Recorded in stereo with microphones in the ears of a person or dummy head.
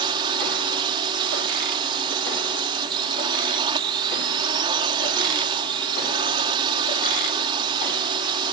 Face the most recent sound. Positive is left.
turn(degrees=-25)  # may be behind; listen again after turning